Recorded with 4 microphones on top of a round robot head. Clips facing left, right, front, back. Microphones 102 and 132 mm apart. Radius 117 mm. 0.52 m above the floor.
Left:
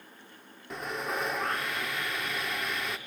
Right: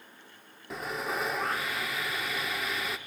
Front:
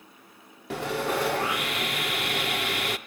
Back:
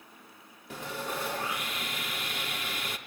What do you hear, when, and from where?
0.7 s sawing: straight ahead, 0.6 m